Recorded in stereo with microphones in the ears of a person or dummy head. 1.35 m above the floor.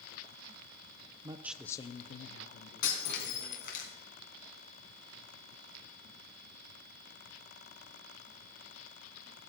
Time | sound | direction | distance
1.2 | a man speaking | 30° right (ahead or behind) | 0.7 m
2.8 | breaking glass | 55° left (ahead or behind) | 3 m